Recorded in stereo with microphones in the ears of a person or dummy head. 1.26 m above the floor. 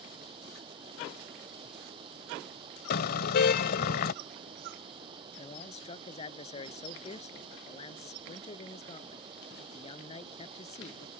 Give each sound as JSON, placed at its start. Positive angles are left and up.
{"t": 0.0, "sound": "running water", "side_deg": -30}
{"t": 2.9, "sound": "a car horn", "side_deg": 55}
{"t": 5.4, "sound": "a man speaking", "side_deg": 35}